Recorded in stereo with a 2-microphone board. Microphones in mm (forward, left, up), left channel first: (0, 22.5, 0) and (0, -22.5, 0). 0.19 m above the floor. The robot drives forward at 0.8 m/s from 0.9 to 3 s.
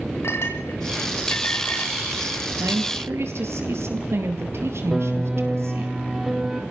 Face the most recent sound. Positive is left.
turn(degrees=-10)  # may be behind; listen again after turning